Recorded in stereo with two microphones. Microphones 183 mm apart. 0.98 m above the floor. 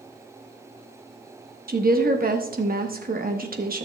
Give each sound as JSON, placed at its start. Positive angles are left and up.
{"t": 1.7, "sound": "a woman speaking", "side_deg": -50, "distance_m": 1.2}